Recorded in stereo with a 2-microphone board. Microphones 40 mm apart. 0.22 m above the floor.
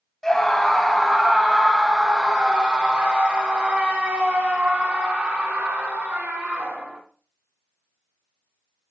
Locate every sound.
0.2 s a scream: 15° left (ahead or behind), 1.6 m; by 7.0 s 55° right (ahead or behind), 3.5 m